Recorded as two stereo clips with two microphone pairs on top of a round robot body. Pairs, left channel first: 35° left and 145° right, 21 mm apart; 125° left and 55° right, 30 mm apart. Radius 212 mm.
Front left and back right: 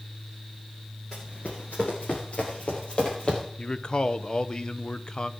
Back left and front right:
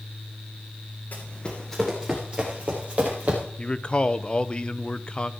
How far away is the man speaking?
About 1.0 m.